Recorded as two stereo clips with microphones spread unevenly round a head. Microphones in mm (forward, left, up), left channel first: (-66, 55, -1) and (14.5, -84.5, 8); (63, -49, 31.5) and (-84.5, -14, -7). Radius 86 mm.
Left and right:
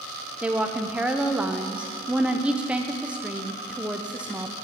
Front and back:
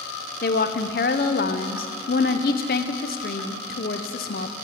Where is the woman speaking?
25° left, 0.7 m.